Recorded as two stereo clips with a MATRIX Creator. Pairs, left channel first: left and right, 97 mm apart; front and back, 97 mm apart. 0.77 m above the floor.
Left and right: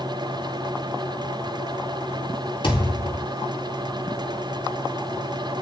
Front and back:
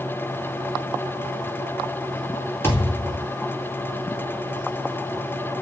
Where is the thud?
65° left, 3 m.